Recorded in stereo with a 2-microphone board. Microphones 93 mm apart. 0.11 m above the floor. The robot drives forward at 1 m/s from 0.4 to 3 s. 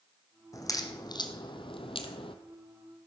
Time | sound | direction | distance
0.5 | a crack | 35° left (ahead or behind) | 2.0 m